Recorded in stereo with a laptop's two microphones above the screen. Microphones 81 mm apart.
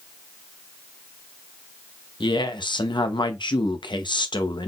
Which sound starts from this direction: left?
A woman speaking, at 2.2 s.